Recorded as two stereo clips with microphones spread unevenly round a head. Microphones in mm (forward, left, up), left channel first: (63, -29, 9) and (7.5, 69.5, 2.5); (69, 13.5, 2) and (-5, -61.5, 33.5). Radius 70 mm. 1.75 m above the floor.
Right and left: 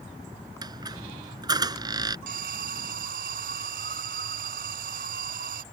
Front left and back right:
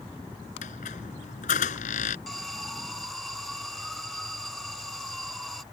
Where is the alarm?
135° left.